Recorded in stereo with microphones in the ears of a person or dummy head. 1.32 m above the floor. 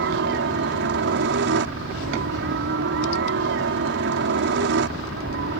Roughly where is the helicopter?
Right.